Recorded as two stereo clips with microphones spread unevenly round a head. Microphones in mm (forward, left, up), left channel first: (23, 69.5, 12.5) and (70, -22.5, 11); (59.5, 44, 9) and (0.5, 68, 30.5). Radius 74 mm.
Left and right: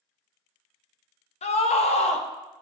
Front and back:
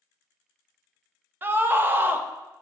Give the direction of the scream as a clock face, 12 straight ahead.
9 o'clock.